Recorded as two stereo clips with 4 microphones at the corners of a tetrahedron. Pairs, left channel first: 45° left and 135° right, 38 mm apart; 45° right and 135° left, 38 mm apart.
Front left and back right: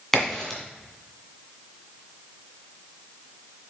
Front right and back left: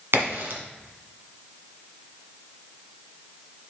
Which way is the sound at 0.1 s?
125° left.